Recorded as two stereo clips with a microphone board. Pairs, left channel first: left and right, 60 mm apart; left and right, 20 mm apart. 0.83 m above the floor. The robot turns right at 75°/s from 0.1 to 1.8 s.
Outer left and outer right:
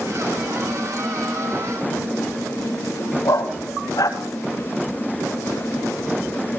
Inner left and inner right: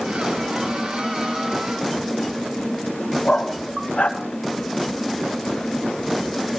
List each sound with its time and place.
3.2 s a dog barking: 85° left, 2.5 m